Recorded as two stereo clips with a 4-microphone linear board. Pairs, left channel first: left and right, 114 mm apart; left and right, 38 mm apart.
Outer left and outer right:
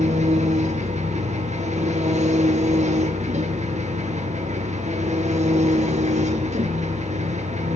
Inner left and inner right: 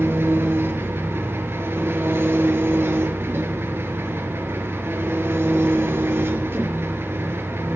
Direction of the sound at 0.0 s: 80° right.